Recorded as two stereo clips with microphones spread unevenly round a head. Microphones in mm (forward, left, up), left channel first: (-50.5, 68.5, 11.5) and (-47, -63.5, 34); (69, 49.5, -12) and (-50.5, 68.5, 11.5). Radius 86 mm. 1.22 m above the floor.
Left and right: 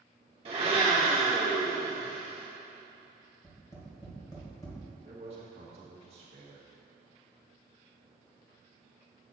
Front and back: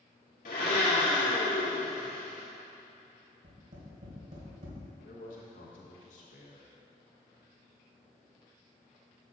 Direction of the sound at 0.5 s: 30° right.